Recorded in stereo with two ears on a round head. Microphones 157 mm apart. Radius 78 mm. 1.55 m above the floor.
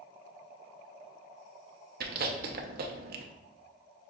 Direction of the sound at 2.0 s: 55° right (ahead or behind).